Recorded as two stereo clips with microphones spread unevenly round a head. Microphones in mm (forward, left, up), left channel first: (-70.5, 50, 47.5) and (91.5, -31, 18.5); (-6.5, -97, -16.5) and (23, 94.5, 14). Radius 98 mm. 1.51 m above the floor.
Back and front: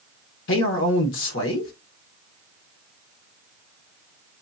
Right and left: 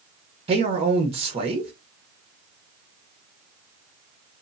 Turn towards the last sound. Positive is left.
turn(degrees=140)